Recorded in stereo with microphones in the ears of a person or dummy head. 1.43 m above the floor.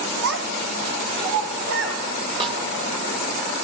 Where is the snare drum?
30° right (ahead or behind), 1.9 m.